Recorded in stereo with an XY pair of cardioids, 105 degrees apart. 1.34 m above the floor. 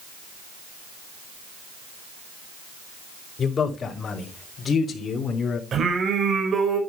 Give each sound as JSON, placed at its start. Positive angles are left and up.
{"t": 3.4, "sound": "a man speaking", "azimuth_deg": 40, "distance_m": 4.5}
{"t": 5.7, "sound": "singing", "azimuth_deg": -50, "distance_m": 5.0}